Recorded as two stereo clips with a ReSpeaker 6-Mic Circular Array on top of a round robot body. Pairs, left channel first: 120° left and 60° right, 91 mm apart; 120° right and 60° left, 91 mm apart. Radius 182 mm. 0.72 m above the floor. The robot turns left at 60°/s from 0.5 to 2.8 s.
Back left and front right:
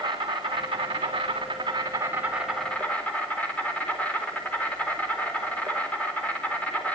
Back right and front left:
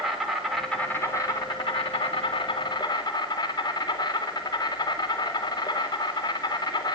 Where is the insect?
25° right, 4 m; by 7.0 s 165° right, 4 m.